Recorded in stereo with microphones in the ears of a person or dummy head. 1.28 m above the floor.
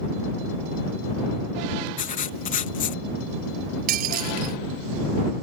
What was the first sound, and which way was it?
Writing, 40° left (ahead or behind).